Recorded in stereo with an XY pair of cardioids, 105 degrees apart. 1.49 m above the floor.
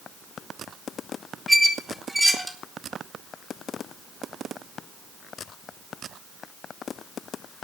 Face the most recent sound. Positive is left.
turn(degrees=-5)